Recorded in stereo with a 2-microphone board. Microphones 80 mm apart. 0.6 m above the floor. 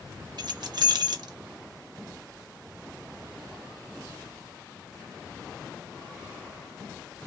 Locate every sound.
0.4 s keys jangling: 60° right (ahead or behind), 0.6 m